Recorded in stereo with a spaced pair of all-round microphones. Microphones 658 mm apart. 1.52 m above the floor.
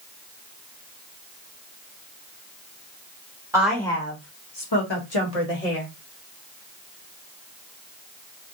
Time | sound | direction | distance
3.5 | a woman speaking | 5° right (ahead or behind) | 1.2 m